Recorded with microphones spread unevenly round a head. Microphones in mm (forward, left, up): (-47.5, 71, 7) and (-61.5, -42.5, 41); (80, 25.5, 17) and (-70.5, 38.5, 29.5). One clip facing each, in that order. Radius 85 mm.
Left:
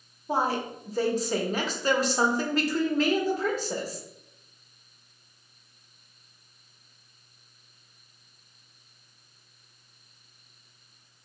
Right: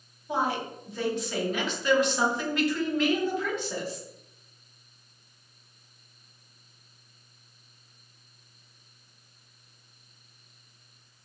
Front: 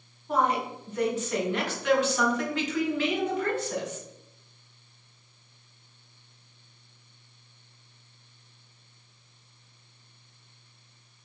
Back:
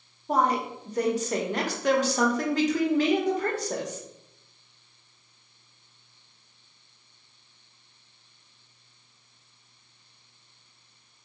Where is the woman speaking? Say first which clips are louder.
Left 2 dB, back 1 dB; 120° left, 1.0 m.